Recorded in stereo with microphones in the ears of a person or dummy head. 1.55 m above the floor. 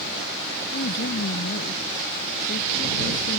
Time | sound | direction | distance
0.7 | a woman speaking | 65° left (ahead or behind) | ?